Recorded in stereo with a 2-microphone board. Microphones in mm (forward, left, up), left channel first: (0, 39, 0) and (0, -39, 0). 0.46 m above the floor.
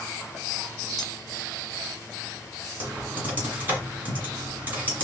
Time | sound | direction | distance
1.0 | cutlery clinking | centre (ahead or behind) | 2 m
2.8 | typing on a keyboard | 20° right (ahead or behind) | 1.6 m